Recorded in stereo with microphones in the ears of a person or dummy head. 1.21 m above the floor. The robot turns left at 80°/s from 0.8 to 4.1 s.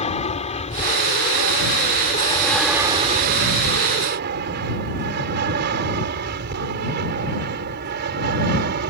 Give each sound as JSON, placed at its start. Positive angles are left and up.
{"t": 0.0, "sound": "an aircraft", "side_deg": 35}